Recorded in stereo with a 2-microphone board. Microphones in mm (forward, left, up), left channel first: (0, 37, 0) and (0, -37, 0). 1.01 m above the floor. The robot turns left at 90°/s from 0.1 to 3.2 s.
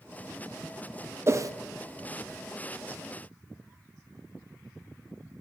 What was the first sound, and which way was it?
A whoosh, 35° right (ahead or behind).